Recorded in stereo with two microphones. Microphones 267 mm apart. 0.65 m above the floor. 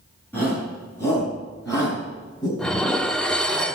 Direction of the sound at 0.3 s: 10° left (ahead or behind).